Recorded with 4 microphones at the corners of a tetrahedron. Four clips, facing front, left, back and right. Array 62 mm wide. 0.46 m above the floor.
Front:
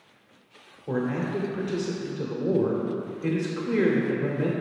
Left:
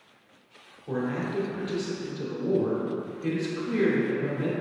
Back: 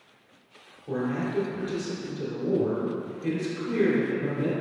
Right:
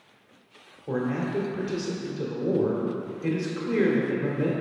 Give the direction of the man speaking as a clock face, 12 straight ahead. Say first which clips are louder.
Right 2 dB, front 1 dB; 1 o'clock.